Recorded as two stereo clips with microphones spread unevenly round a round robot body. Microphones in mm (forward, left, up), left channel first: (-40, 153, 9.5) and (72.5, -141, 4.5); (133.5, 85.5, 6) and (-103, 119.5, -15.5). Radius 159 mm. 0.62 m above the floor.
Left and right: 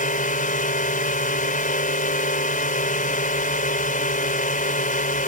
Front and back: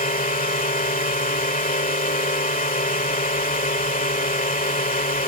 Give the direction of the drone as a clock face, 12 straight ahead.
10 o'clock.